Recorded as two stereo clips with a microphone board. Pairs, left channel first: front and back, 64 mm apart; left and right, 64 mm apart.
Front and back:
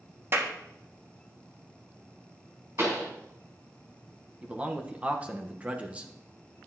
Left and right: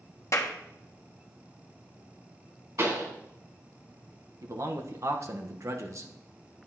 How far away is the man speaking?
About 1.2 m.